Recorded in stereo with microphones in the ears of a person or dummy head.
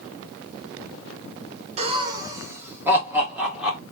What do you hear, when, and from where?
1.8 s laughter: 30° right (ahead or behind), 0.6 m; by 3.8 s centre (ahead or behind), 1.7 m